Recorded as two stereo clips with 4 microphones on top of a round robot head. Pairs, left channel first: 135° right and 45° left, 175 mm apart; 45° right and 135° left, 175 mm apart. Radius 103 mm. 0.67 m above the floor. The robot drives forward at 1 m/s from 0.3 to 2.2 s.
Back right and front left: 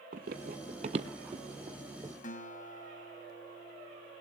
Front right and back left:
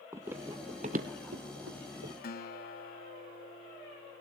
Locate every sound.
0.1 s running footsteps: 65° left, 0.8 m; by 2.1 s 120° left, 1.3 m
2.2 s a guitar: 85° right, 2.5 m